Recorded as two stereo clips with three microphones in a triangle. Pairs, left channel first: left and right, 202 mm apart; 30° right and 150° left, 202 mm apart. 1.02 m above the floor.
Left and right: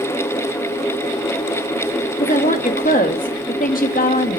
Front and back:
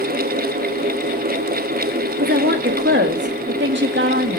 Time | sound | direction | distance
2.2 | a woman speaking | 135° left | 1.7 m